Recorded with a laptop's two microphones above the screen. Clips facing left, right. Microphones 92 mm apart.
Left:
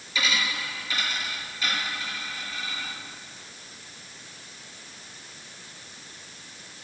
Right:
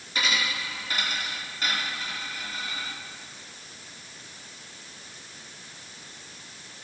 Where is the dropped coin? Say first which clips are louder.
Even; 45° right (ahead or behind), 5 m.